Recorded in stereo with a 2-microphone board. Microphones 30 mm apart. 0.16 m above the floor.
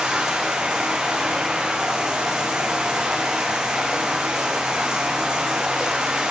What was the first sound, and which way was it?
Running water, 30° right (ahead or behind).